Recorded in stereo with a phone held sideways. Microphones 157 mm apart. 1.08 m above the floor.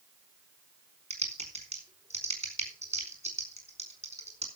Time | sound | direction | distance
1.1 | typing on a keyboard | 50° right (ahead or behind) | 4.5 m